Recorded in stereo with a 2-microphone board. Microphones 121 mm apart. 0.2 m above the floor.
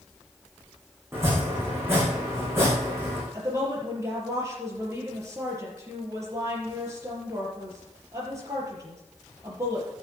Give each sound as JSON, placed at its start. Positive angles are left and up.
{"t": 1.1, "sound": "chopping", "side_deg": -20, "distance_m": 6.0}
{"t": 3.3, "sound": "a woman speaking", "side_deg": -25, "distance_m": 4.5}